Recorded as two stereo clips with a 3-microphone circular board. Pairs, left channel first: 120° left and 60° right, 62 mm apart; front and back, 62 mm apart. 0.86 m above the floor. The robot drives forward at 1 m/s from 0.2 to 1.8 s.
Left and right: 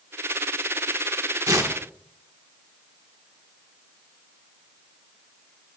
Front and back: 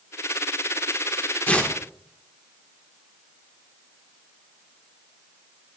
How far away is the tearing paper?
About 1.7 m.